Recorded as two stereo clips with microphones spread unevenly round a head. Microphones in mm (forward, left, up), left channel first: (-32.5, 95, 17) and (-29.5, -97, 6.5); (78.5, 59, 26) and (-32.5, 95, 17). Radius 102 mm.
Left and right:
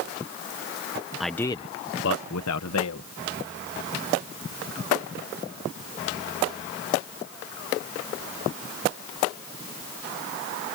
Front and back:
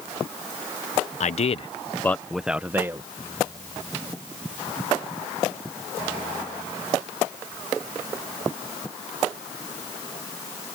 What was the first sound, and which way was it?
A man speaking, straight ahead.